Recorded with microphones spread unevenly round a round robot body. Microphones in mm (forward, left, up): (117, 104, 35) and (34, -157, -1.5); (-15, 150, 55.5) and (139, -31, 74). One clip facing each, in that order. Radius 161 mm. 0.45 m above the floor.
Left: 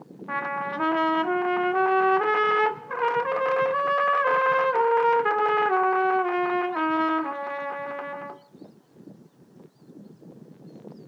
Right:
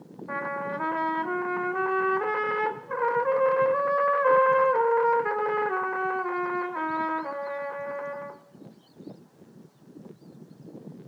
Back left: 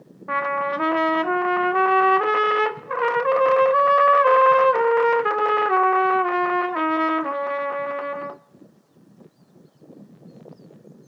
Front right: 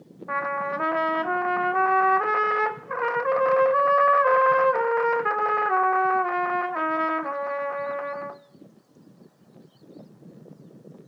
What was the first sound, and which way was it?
A trumpet, 110° left.